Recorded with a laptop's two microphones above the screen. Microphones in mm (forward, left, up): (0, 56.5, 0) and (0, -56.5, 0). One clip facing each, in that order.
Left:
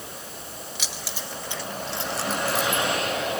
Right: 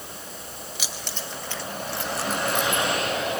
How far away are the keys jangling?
About 3 m.